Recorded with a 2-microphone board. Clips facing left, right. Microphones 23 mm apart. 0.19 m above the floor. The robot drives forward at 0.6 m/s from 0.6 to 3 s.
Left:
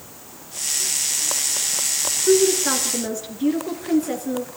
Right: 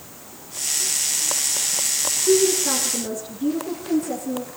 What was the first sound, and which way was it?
A woman speaking, 55° left (ahead or behind).